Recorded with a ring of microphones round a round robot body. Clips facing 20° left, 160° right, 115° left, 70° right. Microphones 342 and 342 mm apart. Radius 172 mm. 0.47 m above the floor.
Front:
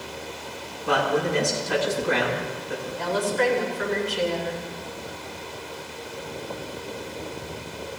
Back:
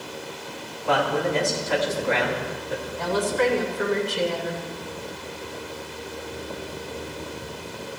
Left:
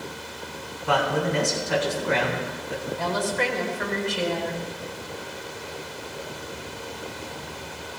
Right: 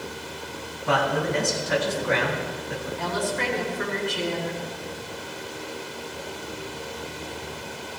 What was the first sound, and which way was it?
A man speaking, 45° right.